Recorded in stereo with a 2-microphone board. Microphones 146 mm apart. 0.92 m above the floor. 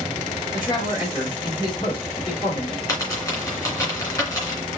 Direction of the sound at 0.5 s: 35° left (ahead or behind).